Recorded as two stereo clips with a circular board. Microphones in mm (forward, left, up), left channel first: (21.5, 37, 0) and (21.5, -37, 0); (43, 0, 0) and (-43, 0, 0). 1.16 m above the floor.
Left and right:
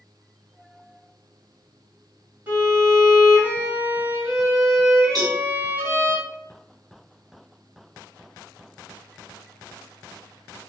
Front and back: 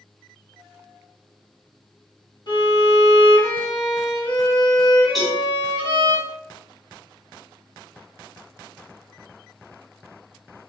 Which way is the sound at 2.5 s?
25° right.